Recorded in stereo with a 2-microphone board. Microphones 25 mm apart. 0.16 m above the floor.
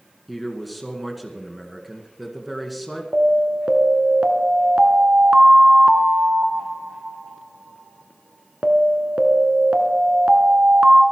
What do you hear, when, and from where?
0.3 s a man speaking: centre (ahead or behind), 2 m
3.1 s an alarm: 50° right (ahead or behind), 1.4 m